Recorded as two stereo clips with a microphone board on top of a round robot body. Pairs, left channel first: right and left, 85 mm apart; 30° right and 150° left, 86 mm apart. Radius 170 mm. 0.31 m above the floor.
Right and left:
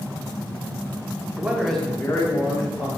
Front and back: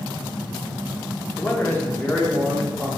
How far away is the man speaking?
About 1.0 m.